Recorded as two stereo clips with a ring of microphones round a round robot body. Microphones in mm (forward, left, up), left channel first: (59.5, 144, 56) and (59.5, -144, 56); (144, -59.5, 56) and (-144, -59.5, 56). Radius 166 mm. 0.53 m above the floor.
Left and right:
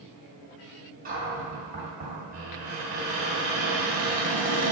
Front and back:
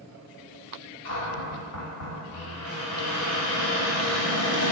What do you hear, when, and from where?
1.1 s a cupboard door: 30° right, 2.5 m